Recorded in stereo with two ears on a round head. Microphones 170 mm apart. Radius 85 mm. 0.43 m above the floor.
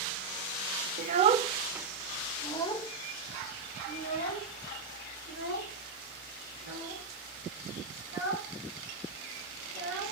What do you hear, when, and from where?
1.0 s a child speaking: 40° right (ahead or behind), 0.8 m; by 10.1 s 65° left (ahead or behind), 4.5 m